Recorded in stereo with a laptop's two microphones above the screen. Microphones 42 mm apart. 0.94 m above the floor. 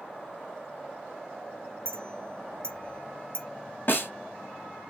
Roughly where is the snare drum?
Left.